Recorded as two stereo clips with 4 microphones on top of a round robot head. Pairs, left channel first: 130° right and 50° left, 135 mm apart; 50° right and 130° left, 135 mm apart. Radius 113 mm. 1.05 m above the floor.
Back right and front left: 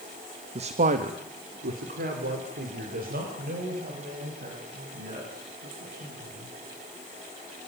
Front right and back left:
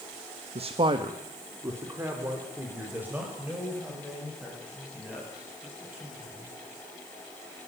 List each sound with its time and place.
0.6 s a man speaking: 95° left, 1.1 m; by 6.5 s 50° left, 10.5 m